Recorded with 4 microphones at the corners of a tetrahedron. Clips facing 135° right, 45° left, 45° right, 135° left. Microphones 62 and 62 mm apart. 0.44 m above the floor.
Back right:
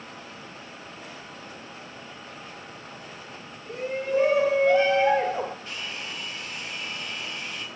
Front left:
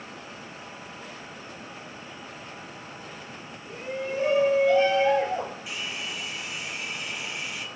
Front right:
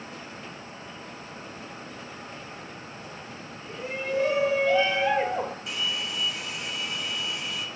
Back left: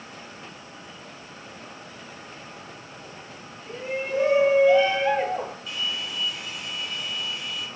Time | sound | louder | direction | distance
3.7 | a shout | back right 4 dB, back left 2 dB | 170° right | 2.5 m
5.7 | a hair dryer | front left 1 dB, even | 35° right | 3 m